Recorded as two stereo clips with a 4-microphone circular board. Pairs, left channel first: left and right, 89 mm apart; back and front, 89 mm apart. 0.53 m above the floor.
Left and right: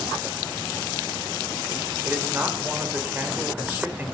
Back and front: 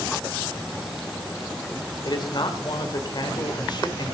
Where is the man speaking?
155° right, 2 m.